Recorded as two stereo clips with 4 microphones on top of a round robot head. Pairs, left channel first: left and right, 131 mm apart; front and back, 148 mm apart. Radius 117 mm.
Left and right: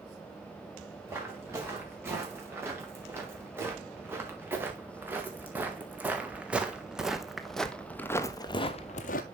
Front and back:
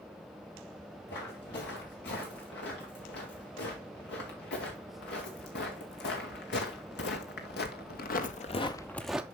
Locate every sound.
1.1 s footsteps: 20° right, 4.5 m; by 9.2 s 100° left, 0.6 m